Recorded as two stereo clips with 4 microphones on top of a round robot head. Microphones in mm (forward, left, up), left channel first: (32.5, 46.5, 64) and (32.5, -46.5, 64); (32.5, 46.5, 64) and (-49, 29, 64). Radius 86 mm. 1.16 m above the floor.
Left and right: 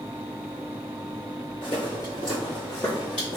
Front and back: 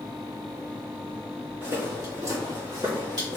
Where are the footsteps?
140° left, 1.9 m; by 3.4 s 175° left, 2.0 m.